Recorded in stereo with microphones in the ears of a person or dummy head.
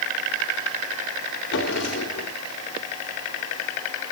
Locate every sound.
1.5 s a drawer: 60° left (ahead or behind), 3 m